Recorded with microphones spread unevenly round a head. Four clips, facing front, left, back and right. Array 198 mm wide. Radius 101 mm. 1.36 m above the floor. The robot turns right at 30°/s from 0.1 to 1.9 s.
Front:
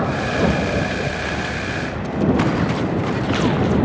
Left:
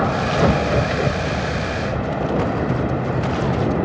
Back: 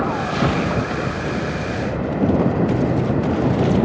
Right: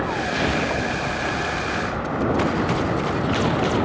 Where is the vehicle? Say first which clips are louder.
Left 5 dB, front 1 dB; 70° left; by 3.9 s 125° left.